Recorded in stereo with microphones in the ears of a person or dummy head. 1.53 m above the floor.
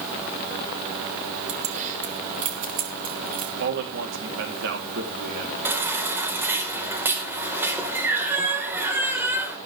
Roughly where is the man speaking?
Right.